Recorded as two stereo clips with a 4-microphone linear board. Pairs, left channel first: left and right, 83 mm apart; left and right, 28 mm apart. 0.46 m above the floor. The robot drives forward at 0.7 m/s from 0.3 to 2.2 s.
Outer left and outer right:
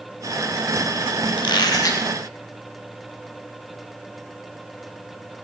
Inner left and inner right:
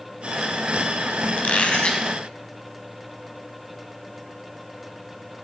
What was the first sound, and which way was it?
A squeak, 70° left (ahead or behind).